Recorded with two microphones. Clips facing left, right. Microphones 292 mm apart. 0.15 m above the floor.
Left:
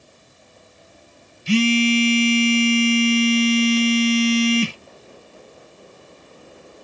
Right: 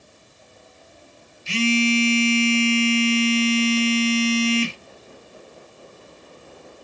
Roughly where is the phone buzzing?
Left.